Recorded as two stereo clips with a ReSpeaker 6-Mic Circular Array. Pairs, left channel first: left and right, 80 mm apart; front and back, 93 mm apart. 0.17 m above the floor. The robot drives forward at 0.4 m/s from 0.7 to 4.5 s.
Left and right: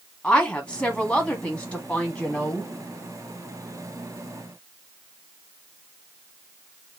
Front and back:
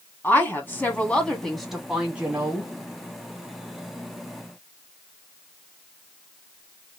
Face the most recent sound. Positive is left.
turn(degrees=170)